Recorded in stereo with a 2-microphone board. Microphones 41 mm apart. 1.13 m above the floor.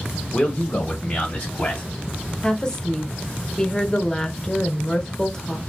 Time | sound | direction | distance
0.3 | a man speaking | 25° left (ahead or behind) | 0.7 m
2.4 | a woman speaking | 15° left (ahead or behind) | 0.7 m